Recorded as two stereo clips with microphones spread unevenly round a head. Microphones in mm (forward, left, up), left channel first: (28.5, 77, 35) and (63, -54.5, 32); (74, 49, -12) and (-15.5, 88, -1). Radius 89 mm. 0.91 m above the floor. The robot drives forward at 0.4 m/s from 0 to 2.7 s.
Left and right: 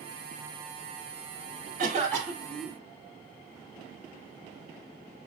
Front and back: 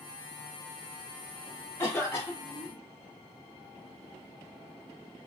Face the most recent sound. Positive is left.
turn(degrees=-115)